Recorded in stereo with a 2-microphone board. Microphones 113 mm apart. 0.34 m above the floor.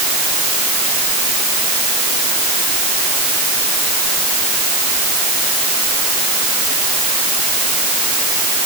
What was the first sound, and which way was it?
Only background noise.